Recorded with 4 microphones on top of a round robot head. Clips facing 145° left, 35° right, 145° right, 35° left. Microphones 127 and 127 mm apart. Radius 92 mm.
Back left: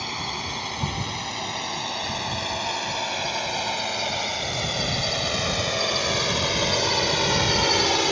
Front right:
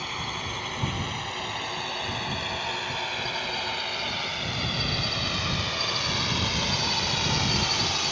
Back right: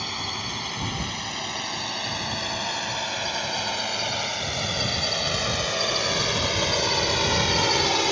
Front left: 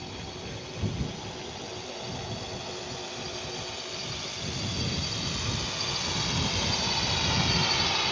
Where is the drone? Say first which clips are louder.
Back left 3 dB, back right 5 dB; 160° right; by 8.1 s 175° left.